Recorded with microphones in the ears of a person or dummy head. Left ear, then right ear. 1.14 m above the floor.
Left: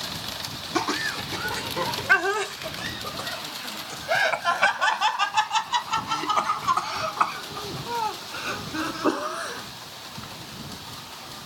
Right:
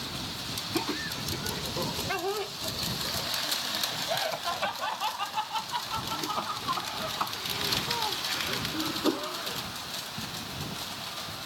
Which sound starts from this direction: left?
Laughter, at 0.8 s.